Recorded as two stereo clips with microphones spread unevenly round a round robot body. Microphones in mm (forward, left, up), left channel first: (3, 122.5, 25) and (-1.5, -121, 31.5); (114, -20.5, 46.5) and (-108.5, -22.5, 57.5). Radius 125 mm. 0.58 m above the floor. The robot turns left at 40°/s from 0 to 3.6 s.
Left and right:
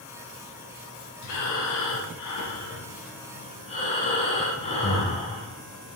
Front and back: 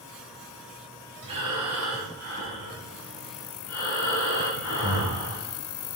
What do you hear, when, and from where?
1.2 s breathing: 115° left, 2.5 m; by 6.0 s 20° left, 2.5 m